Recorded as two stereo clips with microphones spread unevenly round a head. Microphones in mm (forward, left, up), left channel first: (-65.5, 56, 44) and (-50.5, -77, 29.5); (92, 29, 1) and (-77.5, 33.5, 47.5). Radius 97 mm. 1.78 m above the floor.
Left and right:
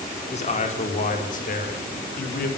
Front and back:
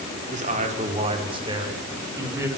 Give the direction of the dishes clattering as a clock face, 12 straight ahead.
No dishes clattering in this recording.